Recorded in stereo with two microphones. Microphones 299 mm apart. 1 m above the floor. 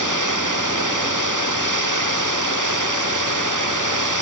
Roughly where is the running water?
Right.